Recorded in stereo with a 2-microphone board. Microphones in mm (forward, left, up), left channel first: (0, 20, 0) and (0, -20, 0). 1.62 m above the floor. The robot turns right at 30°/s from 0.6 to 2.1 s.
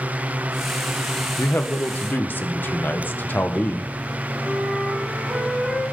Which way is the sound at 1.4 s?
80° left.